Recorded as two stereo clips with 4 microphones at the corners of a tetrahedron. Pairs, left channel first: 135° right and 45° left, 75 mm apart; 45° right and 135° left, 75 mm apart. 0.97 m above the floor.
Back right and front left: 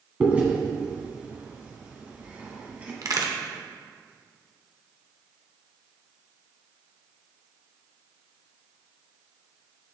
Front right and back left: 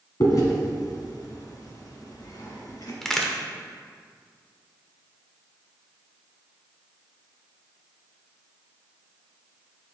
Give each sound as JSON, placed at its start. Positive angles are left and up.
{"t": 0.2, "sound": "chewing", "azimuth_deg": -20, "distance_m": 1.5}
{"t": 3.0, "sound": "a crack", "azimuth_deg": 40, "distance_m": 0.9}